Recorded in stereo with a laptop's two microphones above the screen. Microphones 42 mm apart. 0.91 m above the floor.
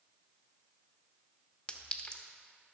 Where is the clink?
25° left (ahead or behind), 0.9 m.